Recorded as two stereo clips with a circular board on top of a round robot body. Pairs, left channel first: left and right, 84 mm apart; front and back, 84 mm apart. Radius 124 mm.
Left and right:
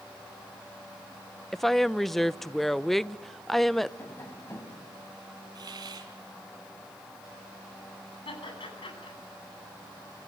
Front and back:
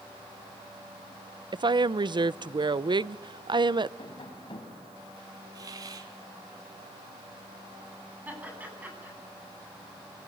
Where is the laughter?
110° left, 9.5 m.